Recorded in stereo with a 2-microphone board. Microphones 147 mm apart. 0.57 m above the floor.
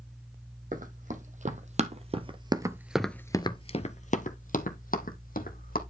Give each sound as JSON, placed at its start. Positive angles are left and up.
{"t": 0.7, "sound": "running footsteps", "side_deg": -60, "distance_m": 1.8}